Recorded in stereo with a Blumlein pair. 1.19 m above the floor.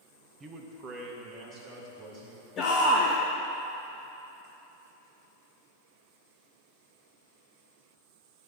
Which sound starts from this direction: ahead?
A man speaking, at 0.4 s.